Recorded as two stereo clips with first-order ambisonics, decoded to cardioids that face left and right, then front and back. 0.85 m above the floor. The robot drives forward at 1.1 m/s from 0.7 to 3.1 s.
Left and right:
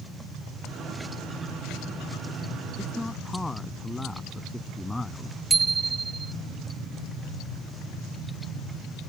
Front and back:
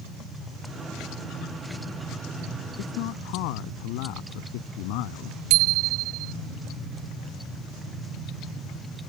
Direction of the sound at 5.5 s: 170° right.